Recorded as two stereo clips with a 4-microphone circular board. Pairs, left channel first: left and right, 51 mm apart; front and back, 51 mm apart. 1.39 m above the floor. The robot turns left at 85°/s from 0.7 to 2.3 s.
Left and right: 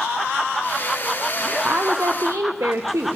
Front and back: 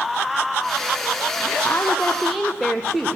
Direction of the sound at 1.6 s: 35° right.